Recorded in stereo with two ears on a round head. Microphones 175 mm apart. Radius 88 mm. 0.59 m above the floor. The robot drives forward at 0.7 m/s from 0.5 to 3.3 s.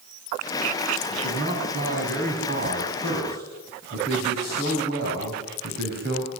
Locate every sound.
1.1 s a man speaking: 40° right (ahead or behind), 6.5 m; by 6.3 s 50° right (ahead or behind), 5.5 m